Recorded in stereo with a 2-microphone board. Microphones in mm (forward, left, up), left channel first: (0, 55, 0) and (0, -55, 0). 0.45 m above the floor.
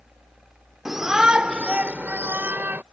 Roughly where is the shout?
Centre.